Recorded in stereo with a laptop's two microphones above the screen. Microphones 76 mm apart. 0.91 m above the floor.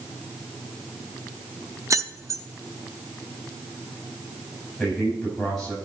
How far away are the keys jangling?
About 0.7 m.